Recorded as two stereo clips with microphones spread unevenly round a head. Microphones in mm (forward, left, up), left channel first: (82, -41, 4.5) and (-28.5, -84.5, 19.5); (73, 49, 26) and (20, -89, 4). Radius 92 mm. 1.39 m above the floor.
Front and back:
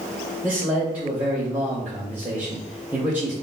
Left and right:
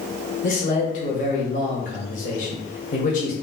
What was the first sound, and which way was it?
A man speaking, 120° left.